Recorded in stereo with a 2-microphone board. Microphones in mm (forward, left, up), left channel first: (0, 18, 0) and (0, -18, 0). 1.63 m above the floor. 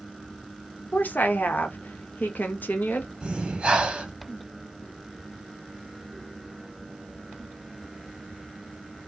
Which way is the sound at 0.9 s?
60° left (ahead or behind).